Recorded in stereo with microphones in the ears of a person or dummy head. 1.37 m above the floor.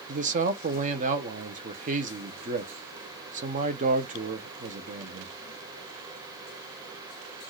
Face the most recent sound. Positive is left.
turn(degrees=-40)  # may be behind; listen again after turning